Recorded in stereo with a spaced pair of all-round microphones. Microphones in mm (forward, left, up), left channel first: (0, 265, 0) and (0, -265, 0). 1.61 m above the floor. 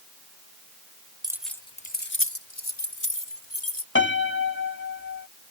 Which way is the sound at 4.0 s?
20° left (ahead or behind).